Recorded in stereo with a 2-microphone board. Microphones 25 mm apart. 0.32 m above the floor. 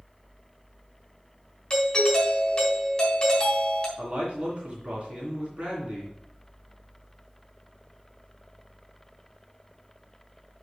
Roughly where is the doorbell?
Left.